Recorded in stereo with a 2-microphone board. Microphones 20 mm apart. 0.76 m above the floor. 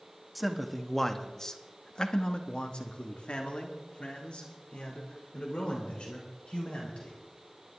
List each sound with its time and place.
0.3 s a man speaking: centre (ahead or behind), 1.4 m; by 7.2 s 60° left (ahead or behind), 4 m